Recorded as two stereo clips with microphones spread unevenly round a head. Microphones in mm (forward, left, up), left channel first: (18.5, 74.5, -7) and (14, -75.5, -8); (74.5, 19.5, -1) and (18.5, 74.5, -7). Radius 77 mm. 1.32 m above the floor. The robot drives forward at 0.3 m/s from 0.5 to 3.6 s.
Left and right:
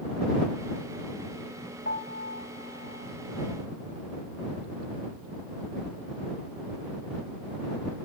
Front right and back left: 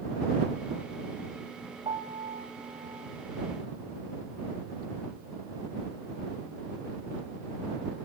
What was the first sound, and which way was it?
A piano, 115° left.